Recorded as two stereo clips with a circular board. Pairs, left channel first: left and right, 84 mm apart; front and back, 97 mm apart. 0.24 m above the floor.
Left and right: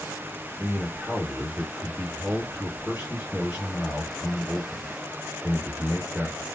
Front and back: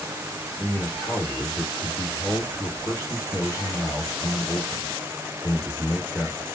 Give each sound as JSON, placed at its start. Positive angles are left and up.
{"t": 0.6, "sound": "a man speaking", "azimuth_deg": -25, "distance_m": 1.5}